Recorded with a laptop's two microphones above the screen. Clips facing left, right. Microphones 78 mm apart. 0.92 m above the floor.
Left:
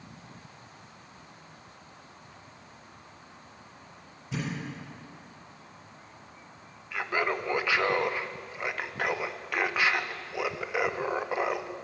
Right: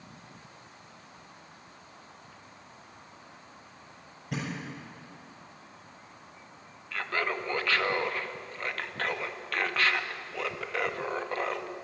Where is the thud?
60° right (ahead or behind), 7.5 m.